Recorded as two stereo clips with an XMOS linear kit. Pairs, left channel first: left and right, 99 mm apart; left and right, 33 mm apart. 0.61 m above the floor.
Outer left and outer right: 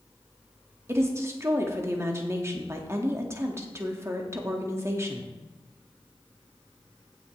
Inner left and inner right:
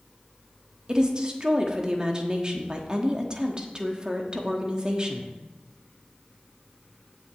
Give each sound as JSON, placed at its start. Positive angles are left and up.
{"t": 0.9, "sound": "a woman speaking", "side_deg": -25, "distance_m": 1.1}